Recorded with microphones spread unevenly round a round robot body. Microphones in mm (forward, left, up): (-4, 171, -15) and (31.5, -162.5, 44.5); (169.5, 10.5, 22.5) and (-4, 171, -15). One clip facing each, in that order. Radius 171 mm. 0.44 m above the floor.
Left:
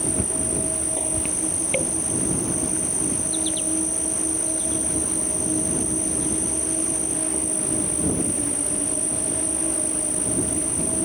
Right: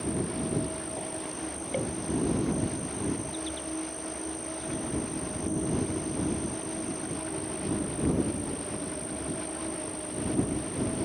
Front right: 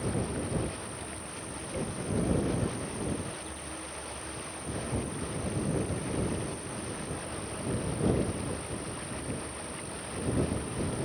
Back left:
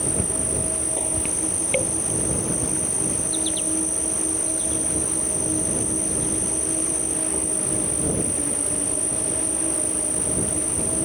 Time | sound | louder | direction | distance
0.0 | an insect | left 2 dB, back left 4 dB | 135° left | ?